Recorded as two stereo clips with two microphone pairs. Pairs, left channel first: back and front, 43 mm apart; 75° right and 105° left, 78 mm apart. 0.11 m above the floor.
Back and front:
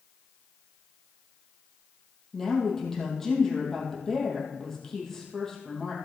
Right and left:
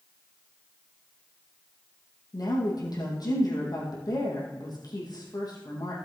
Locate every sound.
2.3 s a woman speaking: 100° right, 3.5 m